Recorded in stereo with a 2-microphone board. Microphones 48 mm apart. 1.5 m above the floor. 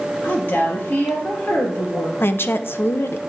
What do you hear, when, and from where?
0.2 s a woman speaking: 55° left (ahead or behind), 3.5 m
2.2 s a woman speaking: 55° left (ahead or behind), 0.6 m